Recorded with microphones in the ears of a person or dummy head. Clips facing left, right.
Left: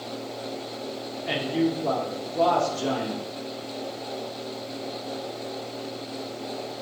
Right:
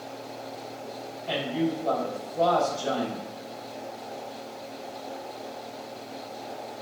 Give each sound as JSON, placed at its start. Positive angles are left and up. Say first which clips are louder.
{"t": 1.3, "sound": "a man speaking", "louder": "left 3 dB", "side_deg": 65, "distance_m": 1.0}